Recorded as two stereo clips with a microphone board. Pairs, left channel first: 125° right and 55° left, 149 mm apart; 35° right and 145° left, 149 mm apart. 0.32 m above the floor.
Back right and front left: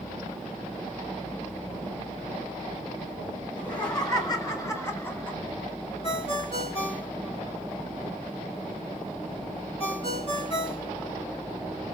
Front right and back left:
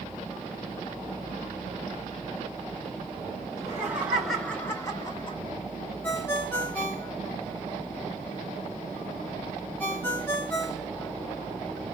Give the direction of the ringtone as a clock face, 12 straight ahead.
4 o'clock.